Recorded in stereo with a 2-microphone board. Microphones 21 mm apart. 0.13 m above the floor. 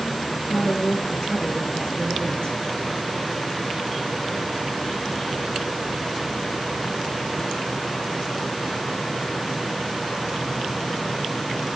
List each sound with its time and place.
0.5 s a woman speaking: 40° left (ahead or behind), 3.5 m